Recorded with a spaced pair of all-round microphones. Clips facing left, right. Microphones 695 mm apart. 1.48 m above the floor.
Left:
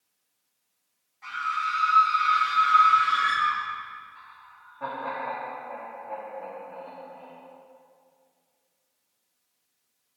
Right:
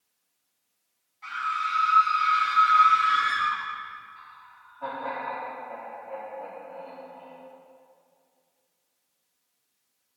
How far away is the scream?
About 5 m.